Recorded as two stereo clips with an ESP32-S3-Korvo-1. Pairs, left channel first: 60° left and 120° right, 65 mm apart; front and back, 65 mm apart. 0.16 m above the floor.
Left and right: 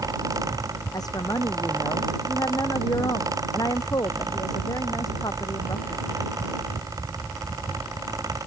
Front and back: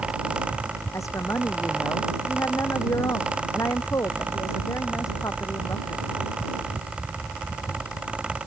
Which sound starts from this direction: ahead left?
A woman speaking, at 0.9 s.